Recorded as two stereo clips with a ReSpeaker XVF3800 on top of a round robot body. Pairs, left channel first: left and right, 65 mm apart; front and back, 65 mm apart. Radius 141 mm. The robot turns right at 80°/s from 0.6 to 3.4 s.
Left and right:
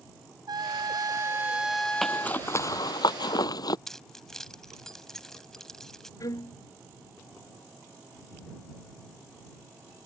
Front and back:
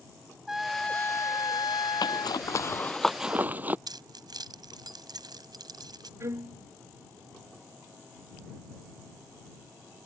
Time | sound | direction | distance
0.5 | a trumpet | 95° right | ?
2.0 | a zipper | straight ahead | ?
3.9 | keys jangling | 175° left | ?
6.2 | a violin | 130° left | ?